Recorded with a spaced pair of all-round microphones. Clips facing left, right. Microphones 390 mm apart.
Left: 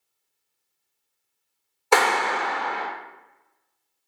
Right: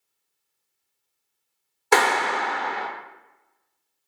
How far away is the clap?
About 0.5 m.